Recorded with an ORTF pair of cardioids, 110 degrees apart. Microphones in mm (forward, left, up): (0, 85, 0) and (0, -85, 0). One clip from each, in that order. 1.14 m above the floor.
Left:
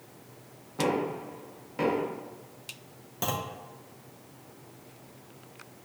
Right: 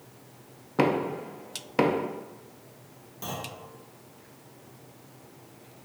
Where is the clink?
No clink in this recording.